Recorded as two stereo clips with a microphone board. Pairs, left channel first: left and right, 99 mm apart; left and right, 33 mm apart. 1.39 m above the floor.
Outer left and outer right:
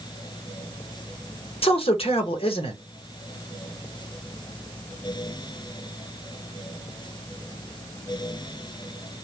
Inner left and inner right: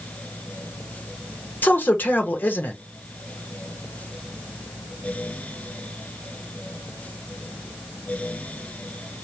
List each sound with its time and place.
1.6 s a man speaking: 70° left (ahead or behind), 1.1 m